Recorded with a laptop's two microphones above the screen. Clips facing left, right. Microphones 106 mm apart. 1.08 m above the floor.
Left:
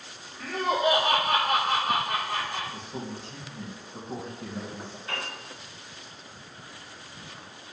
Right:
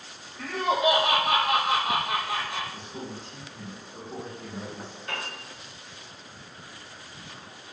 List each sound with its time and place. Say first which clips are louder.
0.4 s laughter: right 1 dB; 75° right (ahead or behind), 0.7 m
2.7 s a man speaking: left 1 dB; 60° left (ahead or behind), 0.7 m
5.1 s a piano: even; 60° right (ahead or behind), 1.4 m